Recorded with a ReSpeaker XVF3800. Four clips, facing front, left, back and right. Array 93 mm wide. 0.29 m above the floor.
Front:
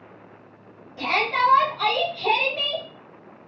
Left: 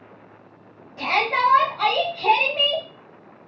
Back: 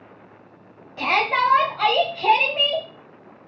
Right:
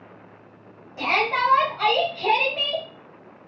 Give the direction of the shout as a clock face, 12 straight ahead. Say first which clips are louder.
Left 1 dB, back 2 dB; 6 o'clock.